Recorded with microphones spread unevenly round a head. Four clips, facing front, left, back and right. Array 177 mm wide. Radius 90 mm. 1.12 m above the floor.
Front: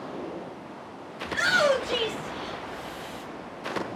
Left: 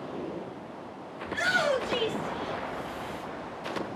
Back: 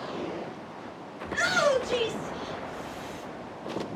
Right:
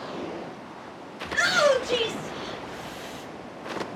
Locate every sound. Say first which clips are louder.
1.2 s a shout: right 5 dB, front 2 dB; 95° right, 5 m